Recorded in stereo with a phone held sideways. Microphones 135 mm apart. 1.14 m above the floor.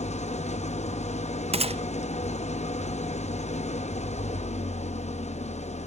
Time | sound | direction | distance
0.0 | an engine running | 55° left (ahead or behind) | 0.7 m
1.5 | a gunshot | 50° right (ahead or behind) | 0.6 m